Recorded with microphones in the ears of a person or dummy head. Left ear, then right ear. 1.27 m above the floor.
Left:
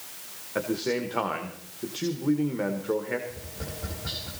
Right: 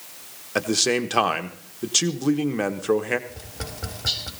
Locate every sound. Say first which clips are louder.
0.6 s a man speaking: right 6 dB; 75° right (ahead or behind), 1.0 m
3.3 s tapping: right 2 dB; 60° right (ahead or behind), 4 m